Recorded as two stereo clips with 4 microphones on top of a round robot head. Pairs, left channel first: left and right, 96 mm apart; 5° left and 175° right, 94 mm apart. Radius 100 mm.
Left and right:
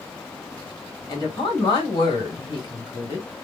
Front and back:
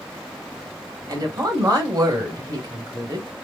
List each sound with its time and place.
1.1 s a woman speaking: 135° left, 2.5 m